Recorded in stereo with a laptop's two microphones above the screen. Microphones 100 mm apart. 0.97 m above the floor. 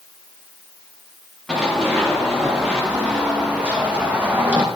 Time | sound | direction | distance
1.5 | running footsteps | 5° right (ahead or behind) | 7 m